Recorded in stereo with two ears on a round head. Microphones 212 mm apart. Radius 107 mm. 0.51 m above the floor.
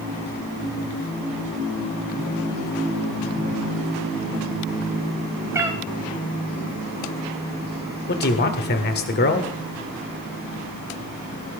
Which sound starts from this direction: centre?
A cat meowing, at 5.5 s.